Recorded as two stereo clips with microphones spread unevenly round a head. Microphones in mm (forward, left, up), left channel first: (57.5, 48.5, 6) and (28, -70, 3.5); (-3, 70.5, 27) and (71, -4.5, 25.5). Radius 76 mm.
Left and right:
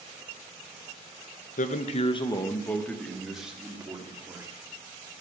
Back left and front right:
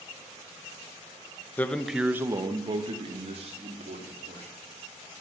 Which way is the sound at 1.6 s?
60° left.